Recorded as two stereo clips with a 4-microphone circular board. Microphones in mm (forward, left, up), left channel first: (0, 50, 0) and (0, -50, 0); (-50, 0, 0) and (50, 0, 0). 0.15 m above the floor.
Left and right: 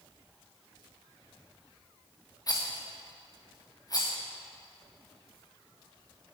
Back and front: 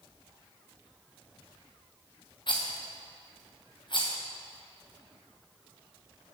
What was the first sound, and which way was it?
A rattle, 140° left.